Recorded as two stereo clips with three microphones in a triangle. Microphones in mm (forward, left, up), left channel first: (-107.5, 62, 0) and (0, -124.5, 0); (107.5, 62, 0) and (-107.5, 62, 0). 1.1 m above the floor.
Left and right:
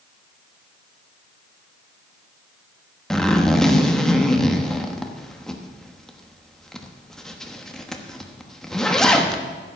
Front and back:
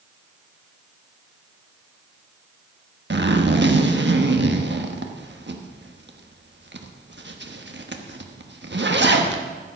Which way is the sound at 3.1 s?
155° right.